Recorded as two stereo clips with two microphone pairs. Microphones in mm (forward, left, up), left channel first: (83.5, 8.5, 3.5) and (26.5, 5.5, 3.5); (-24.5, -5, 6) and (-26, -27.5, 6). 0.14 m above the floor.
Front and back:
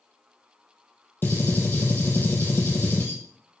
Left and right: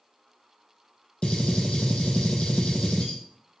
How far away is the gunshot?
About 0.9 m.